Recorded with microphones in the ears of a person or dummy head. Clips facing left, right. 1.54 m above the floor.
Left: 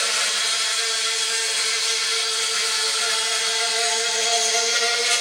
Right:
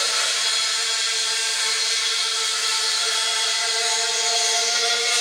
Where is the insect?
45° left (ahead or behind), 1.3 m.